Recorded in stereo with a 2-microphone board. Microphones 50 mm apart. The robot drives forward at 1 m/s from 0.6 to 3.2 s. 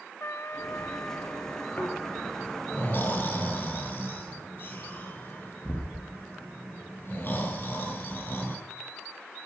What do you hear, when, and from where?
0.2 s a trumpet: 65° left (ahead or behind), 0.9 m; by 2.5 s 25° left (ahead or behind), 2.0 m
1.8 s snoring: 40° left (ahead or behind), 8.5 m; by 8.6 s 45° left (ahead or behind), 7.5 m